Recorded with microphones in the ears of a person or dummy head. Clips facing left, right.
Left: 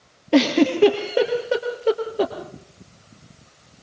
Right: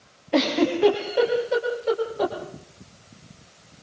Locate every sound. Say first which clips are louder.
0.3 s a giggle: left 4 dB; 50° left (ahead or behind), 4 m